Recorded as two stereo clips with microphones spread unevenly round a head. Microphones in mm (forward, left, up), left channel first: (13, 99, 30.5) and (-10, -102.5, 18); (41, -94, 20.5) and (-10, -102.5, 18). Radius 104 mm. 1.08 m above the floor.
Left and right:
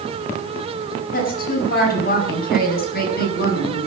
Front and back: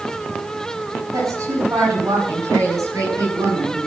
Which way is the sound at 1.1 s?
130° left.